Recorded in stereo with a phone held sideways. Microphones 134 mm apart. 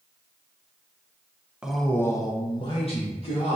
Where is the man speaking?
5° right (ahead or behind), 0.6 m; by 3.6 s 50° left (ahead or behind), 1.4 m.